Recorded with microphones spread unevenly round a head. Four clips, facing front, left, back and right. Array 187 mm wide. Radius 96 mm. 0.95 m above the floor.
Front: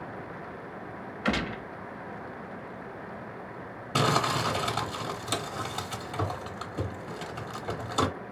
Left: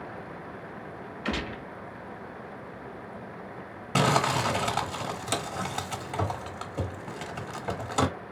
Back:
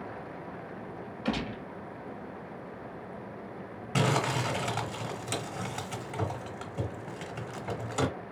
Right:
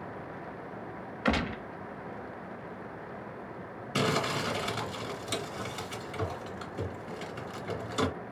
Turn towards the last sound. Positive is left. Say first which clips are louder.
# left 5 dB, front 2 dB
turn(degrees=85)